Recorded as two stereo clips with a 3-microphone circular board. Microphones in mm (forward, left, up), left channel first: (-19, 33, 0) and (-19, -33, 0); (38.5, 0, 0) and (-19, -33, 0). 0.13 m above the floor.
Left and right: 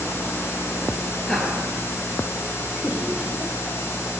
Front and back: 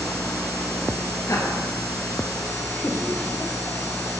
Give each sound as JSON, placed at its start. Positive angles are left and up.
{"t": 1.3, "sound": "laughter", "azimuth_deg": 10, "distance_m": 2.5}